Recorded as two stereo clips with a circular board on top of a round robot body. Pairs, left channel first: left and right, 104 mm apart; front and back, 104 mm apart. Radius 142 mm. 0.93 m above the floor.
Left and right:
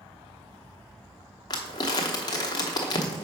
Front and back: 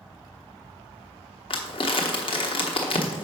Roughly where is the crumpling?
Ahead left.